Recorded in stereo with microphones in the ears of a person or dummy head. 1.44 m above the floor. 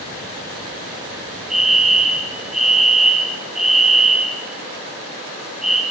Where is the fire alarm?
5° right (ahead or behind), 4.5 m.